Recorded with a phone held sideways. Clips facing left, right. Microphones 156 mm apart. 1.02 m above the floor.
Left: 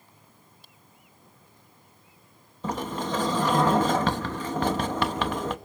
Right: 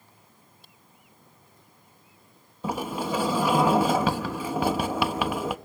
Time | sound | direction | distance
2.6 | a sliding door | 10° right (ahead or behind) | 0.9 m